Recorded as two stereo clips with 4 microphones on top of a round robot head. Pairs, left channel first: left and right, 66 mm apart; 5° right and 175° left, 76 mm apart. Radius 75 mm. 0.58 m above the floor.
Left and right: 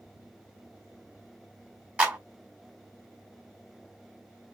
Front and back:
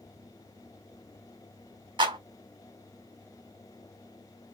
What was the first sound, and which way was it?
A clap, 160° right.